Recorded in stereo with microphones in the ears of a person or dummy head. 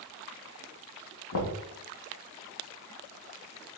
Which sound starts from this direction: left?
Knocking, at 1.3 s.